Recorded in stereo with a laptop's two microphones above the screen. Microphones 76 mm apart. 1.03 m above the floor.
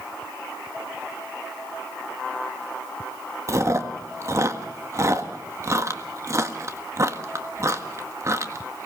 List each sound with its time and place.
3.5 s chewing: 40° right (ahead or behind), 1.6 m